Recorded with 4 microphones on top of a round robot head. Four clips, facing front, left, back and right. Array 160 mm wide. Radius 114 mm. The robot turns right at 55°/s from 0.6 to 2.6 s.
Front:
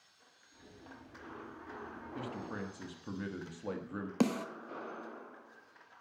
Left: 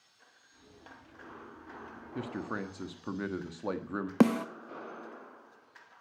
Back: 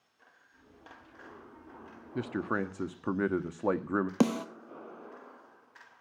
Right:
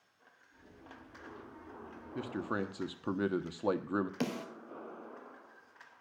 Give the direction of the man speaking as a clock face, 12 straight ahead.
6 o'clock.